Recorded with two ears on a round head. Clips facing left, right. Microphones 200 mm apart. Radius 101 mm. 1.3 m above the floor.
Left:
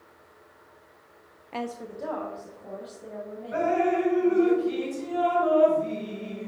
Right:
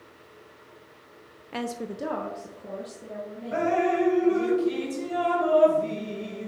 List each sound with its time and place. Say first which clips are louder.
1.5 s a woman speaking: right 2 dB; 10° right (ahead or behind), 0.5 m; by 4.5 s 30° right (ahead or behind), 4.5 m
3.5 s dripping: even; 60° right (ahead or behind), 3.5 m